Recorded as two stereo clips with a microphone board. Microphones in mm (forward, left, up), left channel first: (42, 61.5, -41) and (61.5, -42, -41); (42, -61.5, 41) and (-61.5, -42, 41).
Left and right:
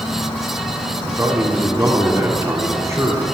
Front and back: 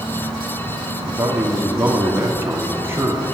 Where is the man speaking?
130° right, 1.9 m.